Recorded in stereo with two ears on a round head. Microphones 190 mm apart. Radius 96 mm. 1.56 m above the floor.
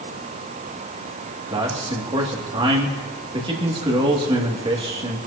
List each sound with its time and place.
1.5 s a man speaking: 25° right (ahead or behind), 2.5 m